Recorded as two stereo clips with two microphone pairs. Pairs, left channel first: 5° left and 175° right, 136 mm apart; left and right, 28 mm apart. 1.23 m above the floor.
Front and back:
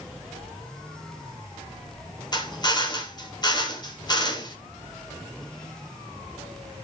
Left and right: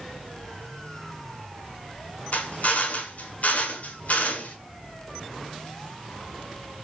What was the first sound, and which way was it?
A drill, 65° left.